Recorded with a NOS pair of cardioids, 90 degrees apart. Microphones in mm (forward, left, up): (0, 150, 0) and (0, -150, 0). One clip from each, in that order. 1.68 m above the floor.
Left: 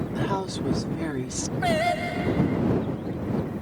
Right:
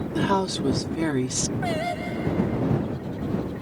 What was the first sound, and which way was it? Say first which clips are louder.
A woman speaking: right 6 dB; 40° right.